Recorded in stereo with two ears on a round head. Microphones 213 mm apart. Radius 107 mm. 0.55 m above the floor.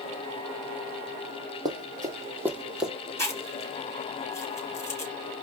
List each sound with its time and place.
1.6 s running footsteps: 20° right (ahead or behind), 1.5 m; by 2.9 s centre (ahead or behind), 1.0 m
3.2 s chewing: 10° left (ahead or behind), 2.5 m